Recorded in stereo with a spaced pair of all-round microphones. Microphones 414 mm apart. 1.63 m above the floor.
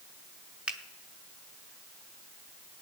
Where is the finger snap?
Centre (ahead or behind), 1.4 m.